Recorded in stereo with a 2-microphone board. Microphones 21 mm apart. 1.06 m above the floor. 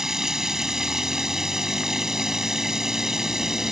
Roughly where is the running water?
Right.